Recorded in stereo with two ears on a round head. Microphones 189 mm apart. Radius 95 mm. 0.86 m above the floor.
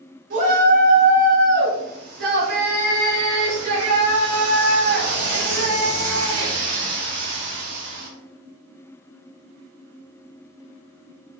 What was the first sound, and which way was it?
A shout, 50° right (ahead or behind).